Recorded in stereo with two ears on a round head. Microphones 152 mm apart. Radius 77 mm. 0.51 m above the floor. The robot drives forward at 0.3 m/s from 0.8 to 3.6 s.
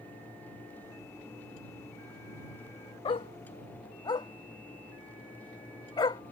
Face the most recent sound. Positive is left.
turn(degrees=25)  # may be behind; listen again after turning